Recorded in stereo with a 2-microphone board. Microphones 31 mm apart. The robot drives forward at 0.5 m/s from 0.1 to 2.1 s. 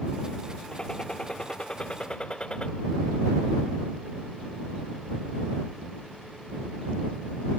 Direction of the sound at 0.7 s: 25° left (ahead or behind).